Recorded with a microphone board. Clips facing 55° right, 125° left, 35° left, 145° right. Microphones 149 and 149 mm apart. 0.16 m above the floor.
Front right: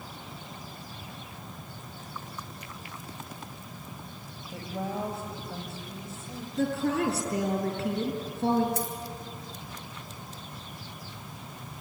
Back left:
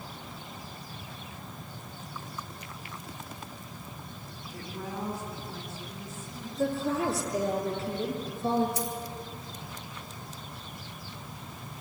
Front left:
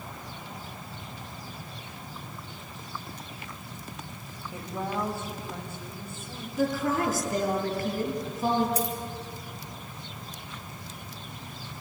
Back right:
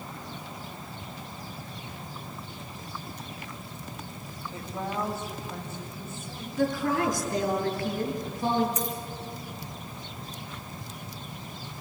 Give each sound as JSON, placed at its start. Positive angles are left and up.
{"t": 4.5, "sound": "a woman speaking", "azimuth_deg": -40, "distance_m": 7.5}
{"t": 6.6, "sound": "a woman speaking", "azimuth_deg": -50, "distance_m": 5.0}
{"t": 8.8, "sound": "a dropped coin", "azimuth_deg": -20, "distance_m": 3.5}